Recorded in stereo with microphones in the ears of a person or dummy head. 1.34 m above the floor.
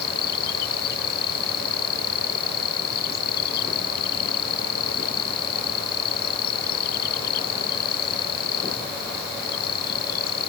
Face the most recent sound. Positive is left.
turn(degrees=50)  # may be behind; listen again after turning